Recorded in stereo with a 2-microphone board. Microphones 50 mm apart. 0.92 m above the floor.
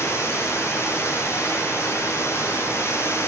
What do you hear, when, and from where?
0.0 s running water: 65° left (ahead or behind), 6.5 m